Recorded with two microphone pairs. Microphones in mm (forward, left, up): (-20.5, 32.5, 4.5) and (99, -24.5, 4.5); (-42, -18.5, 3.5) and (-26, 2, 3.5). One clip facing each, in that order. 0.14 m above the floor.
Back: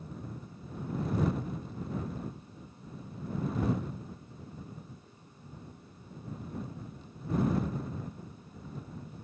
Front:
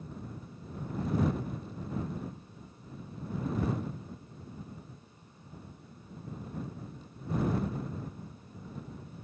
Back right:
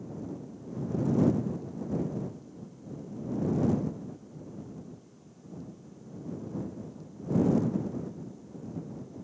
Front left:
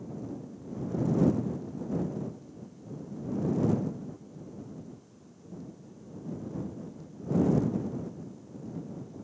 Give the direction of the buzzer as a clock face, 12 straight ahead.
No buzzer in this recording.